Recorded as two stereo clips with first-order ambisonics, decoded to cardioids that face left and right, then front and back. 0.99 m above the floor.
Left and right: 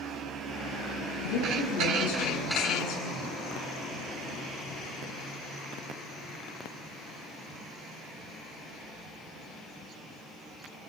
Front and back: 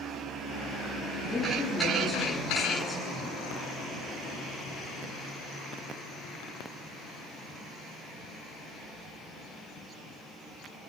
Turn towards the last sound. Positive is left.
turn(degrees=95)